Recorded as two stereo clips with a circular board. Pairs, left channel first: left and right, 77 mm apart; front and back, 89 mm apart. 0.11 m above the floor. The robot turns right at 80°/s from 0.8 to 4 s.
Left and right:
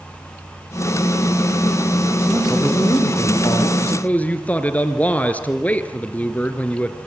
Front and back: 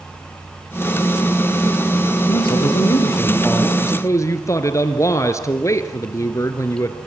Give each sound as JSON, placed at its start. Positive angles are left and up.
{"t": 2.3, "sound": "a man speaking", "azimuth_deg": -20, "distance_m": 3.5}
{"t": 3.8, "sound": "a man speaking", "azimuth_deg": 15, "distance_m": 1.6}